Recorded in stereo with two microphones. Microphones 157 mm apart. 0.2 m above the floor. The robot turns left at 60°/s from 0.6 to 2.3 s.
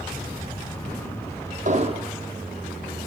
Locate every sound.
1.6 s an explosion: 50° right (ahead or behind), 1.4 m; by 2.1 s 25° right (ahead or behind), 1.4 m